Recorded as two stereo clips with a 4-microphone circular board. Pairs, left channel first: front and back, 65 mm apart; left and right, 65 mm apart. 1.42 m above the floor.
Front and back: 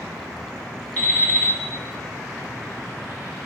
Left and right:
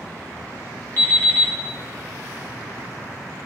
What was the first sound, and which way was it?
An alarm clock, 50° left.